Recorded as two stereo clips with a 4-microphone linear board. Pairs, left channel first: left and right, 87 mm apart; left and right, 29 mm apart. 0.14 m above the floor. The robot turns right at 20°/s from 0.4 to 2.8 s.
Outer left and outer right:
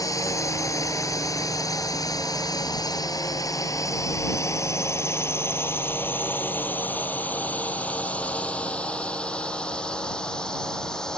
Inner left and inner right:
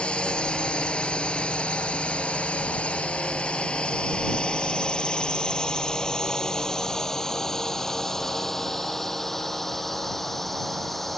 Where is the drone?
40° left (ahead or behind); by 11.2 s 5° left (ahead or behind).